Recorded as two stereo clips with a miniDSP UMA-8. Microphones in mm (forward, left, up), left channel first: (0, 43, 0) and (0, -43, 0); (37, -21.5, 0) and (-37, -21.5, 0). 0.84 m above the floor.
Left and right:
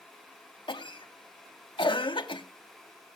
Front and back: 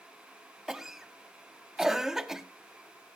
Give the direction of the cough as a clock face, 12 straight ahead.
9 o'clock.